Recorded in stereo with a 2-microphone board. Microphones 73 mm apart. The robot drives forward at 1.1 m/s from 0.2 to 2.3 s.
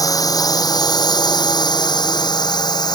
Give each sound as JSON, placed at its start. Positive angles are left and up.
{"t": 0.0, "sound": "a drone", "side_deg": 55}